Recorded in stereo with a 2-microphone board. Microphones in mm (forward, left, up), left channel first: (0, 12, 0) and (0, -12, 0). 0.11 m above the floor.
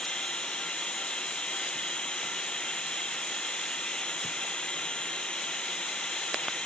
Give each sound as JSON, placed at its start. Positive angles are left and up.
{"t": 0.0, "sound": "running water", "side_deg": 50}